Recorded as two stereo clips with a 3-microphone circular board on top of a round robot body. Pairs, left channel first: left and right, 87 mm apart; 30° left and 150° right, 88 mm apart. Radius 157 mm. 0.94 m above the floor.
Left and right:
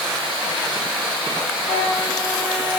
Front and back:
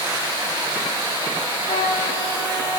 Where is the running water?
170° right, 5.5 m.